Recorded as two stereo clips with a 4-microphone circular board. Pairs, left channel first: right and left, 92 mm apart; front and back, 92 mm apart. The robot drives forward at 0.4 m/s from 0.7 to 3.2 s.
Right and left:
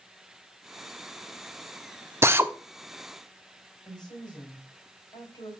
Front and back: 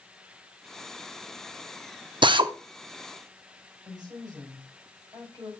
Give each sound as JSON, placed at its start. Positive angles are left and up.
{"t": 2.2, "sound": "a drill", "azimuth_deg": 150, "distance_m": 0.6}
{"t": 3.9, "sound": "a woman speaking", "azimuth_deg": -135, "distance_m": 4.0}